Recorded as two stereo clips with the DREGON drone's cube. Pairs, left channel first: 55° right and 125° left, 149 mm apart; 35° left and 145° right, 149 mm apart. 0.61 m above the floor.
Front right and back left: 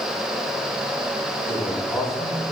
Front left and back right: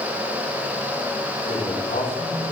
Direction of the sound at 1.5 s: 30° left.